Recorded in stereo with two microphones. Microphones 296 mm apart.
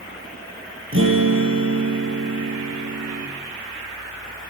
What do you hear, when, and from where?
0.9 s a guitar: 45° right (ahead or behind), 4.5 m